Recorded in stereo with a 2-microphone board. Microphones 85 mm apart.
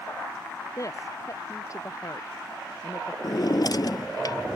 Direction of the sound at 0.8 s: 40° left (ahead or behind).